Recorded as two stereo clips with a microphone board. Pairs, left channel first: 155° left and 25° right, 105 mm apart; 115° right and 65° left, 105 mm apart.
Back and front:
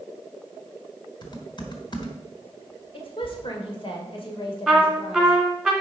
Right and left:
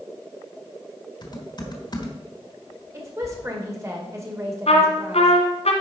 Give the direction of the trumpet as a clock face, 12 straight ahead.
4 o'clock.